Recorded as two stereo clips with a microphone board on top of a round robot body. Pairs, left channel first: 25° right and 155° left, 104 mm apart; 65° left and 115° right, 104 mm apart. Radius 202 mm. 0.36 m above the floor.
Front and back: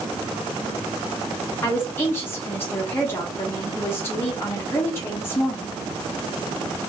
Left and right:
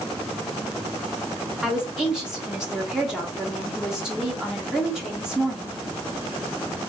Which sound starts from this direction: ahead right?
A woman speaking, at 1.6 s.